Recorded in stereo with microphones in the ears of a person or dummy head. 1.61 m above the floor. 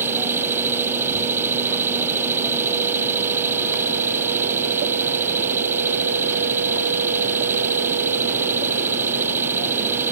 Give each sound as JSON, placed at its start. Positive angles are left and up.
{"t": 0.0, "sound": "an engine running", "side_deg": -10}